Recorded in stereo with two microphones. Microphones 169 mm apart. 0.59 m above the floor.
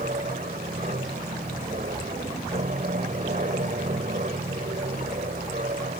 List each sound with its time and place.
0.0 s an aircraft: 55° right (ahead or behind)